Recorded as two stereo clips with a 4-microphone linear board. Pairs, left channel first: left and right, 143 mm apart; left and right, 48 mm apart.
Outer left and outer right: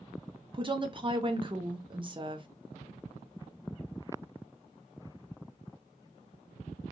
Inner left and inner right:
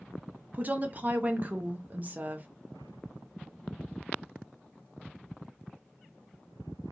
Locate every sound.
0.5 s a woman speaking: 35° right (ahead or behind), 0.6 m